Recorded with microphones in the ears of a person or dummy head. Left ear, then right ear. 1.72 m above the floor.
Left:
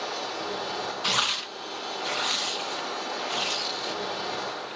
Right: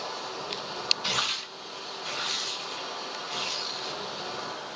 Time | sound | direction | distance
0.0 | a machine running | 35° left (ahead or behind) | 2.5 m
1.0 | tearing paper | 5° left (ahead or behind) | 0.5 m